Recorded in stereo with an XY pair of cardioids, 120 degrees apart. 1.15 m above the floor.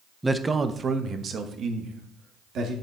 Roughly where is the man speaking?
Ahead.